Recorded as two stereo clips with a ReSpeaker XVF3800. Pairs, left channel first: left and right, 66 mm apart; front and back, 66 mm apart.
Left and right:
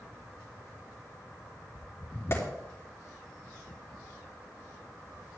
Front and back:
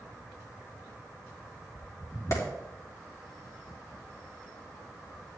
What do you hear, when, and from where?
2.3 s a clap: 40° left, 3 m